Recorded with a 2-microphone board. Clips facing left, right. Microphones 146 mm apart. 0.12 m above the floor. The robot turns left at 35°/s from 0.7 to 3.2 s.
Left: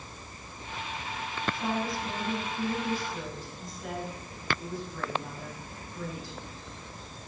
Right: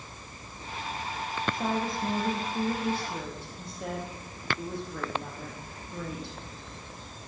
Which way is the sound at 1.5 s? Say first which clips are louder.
Right 1 dB; 50° right.